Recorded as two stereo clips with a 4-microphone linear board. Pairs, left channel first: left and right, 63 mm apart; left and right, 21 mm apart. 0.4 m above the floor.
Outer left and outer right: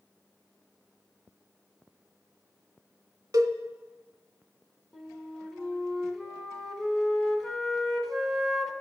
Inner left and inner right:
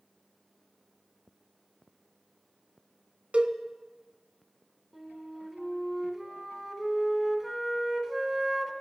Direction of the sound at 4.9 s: 10° left (ahead or behind).